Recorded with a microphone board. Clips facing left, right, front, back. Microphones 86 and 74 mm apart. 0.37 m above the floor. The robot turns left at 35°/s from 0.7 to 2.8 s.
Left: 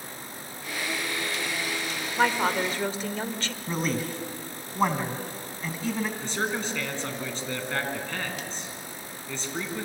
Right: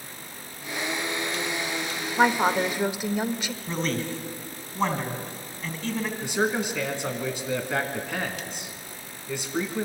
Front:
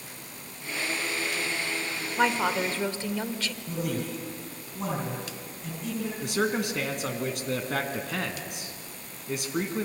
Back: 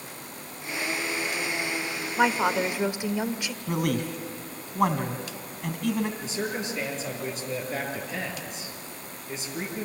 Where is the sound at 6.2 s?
15° right, 3 m.